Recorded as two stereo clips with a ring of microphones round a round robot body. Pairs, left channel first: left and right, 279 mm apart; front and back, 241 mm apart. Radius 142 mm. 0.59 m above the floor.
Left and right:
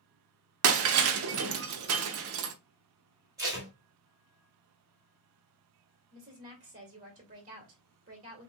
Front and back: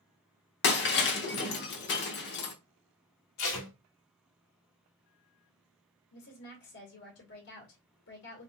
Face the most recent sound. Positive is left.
turn(degrees=-30)